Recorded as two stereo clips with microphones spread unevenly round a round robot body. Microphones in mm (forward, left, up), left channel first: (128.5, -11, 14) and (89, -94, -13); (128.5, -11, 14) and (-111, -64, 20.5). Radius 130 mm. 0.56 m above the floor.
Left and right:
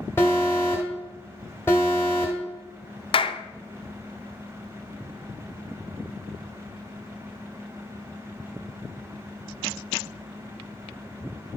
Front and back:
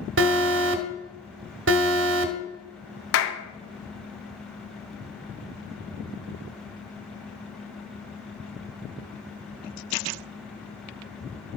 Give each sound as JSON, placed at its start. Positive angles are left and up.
{"t": 0.2, "sound": "an alarm", "azimuth_deg": 150, "distance_m": 0.9}
{"t": 3.1, "sound": "a clap", "azimuth_deg": 35, "distance_m": 0.8}